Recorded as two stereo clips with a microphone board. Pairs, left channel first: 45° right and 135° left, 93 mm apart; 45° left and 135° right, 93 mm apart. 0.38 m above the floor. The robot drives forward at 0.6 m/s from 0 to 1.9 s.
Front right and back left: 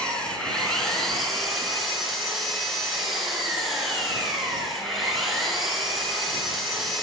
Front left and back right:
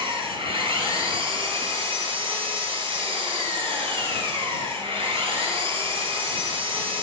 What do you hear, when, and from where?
0.0 s an engine running: 125° right, 3.5 m; by 7.0 s 135° right, 4.5 m